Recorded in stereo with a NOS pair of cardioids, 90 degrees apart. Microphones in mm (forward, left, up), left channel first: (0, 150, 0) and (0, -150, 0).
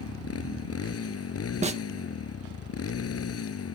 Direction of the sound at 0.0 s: 50° left.